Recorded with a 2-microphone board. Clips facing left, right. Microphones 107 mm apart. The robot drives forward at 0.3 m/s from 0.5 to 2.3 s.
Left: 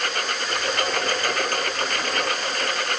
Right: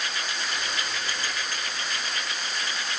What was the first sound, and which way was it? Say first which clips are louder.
A lawn mower: left 6 dB; 60° left (ahead or behind).